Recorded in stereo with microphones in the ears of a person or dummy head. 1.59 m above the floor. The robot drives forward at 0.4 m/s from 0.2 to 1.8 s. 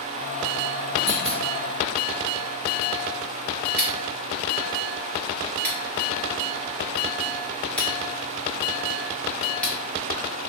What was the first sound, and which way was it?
A clunk, 50° left (ahead or behind).